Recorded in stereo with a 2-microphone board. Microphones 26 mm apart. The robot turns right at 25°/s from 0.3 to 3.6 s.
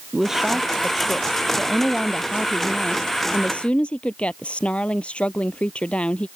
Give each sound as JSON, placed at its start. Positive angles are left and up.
{"t": 0.1, "sound": "a woman speaking", "azimuth_deg": -15}